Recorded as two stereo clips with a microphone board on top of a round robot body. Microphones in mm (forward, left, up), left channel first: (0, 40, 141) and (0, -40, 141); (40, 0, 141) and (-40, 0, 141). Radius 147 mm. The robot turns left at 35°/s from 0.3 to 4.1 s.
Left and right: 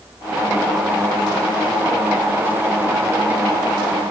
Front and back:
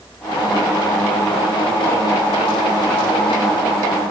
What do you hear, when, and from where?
Only background noise.